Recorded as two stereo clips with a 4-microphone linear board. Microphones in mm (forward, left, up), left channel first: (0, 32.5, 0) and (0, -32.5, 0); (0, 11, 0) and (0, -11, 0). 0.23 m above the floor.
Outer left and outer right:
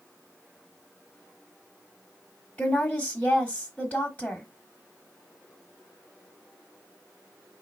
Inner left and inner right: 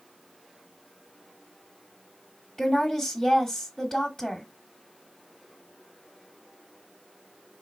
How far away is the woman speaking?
About 1.0 m.